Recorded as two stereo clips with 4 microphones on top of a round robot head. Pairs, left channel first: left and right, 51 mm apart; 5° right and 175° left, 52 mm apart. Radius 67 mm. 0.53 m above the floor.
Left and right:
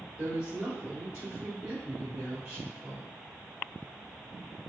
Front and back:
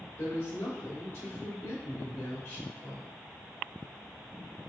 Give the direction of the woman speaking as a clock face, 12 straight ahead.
1 o'clock.